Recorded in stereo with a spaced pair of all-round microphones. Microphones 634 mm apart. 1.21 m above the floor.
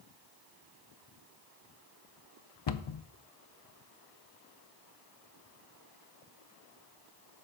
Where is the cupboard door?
45° left (ahead or behind), 0.5 m.